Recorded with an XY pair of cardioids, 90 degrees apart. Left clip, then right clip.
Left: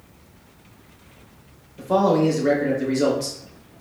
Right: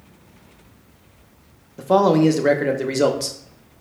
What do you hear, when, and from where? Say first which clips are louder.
1.8 s a man speaking: right 3 dB; 60° right, 0.6 m